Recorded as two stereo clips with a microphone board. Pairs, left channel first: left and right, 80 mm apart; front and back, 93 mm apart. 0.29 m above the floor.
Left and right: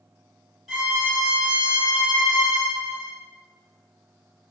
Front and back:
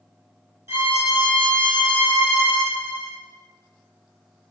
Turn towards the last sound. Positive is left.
turn(degrees=-175)